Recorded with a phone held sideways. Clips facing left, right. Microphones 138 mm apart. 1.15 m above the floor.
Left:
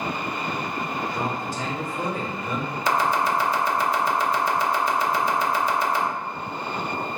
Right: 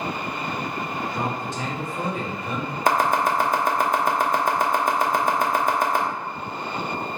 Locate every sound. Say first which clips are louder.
1.0 s a man speaking: right 1 dB; 20° right (ahead or behind), 1.8 m
2.9 s chopping: right 2 dB; 50° right (ahead or behind), 0.8 m